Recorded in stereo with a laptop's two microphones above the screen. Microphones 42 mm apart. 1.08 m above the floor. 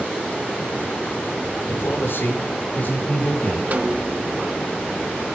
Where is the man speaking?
75° left (ahead or behind), 3 m; by 3.6 s 45° left (ahead or behind), 4.5 m.